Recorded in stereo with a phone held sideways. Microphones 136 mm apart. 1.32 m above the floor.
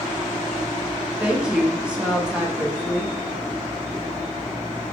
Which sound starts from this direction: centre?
A woman speaking, at 1.2 s.